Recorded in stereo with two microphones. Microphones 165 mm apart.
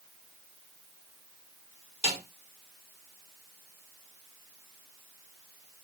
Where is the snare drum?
40° left (ahead or behind), 1.0 m.